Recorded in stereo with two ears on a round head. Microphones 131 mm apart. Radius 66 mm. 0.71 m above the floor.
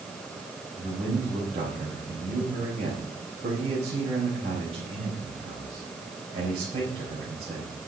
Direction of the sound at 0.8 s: 45° right (ahead or behind).